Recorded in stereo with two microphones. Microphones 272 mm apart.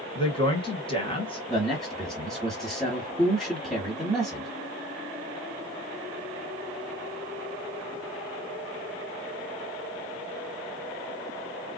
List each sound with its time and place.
0.1 s a woman speaking: 20° left (ahead or behind), 1.5 m
1.5 s a man speaking: centre (ahead or behind), 1.5 m